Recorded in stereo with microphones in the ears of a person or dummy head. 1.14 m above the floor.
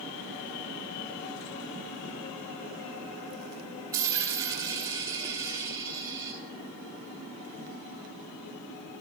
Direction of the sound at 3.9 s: 10° right (ahead or behind).